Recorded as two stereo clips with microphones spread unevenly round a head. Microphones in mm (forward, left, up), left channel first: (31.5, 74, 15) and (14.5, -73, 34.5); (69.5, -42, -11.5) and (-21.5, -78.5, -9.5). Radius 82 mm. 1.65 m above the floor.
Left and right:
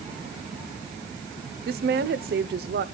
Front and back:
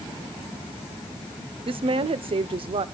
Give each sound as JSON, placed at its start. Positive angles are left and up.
{"t": 1.7, "sound": "a woman speaking", "azimuth_deg": -130, "distance_m": 1.0}